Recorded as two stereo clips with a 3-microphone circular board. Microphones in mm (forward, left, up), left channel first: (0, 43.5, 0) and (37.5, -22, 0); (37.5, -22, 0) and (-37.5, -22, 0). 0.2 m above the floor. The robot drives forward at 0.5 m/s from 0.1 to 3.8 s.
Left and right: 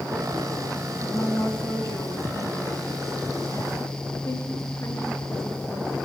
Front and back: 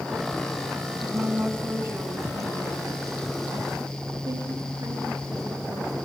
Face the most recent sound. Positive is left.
turn(degrees=155)